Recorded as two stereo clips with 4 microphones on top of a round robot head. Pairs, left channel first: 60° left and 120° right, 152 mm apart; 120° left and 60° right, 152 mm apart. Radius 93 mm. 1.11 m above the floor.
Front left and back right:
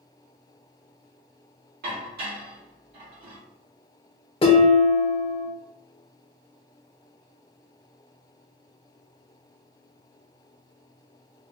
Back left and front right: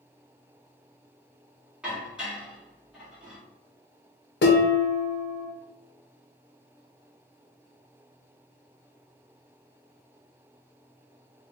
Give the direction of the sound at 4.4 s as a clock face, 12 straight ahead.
8 o'clock.